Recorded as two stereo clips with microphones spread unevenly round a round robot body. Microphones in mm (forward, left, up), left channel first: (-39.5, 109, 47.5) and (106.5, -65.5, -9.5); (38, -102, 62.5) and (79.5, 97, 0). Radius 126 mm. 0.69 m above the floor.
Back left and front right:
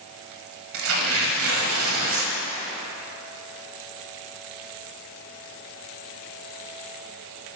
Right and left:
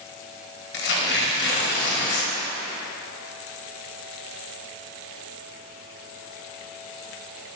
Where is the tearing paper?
95° right, 0.8 m.